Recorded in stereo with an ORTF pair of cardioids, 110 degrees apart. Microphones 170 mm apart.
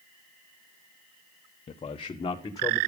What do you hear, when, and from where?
1.7 s a man speaking: 35° left, 1.1 m; by 2.8 s 20° left, 1.8 m